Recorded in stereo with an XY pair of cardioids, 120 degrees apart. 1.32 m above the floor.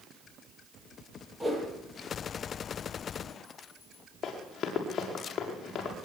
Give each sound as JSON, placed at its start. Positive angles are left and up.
{"t": 1.4, "sound": "a whoosh", "azimuth_deg": -10, "distance_m": 10.0}
{"t": 4.2, "sound": "running footsteps", "azimuth_deg": 45, "distance_m": 8.0}